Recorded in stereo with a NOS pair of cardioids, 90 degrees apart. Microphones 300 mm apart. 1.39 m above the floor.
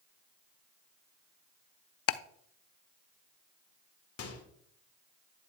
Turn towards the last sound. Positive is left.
turn(degrees=55)